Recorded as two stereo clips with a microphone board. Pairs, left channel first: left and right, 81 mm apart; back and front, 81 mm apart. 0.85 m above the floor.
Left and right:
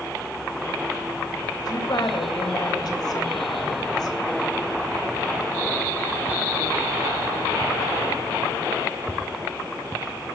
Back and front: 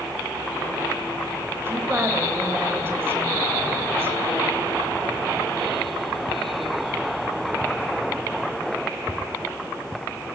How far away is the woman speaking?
About 3.5 m.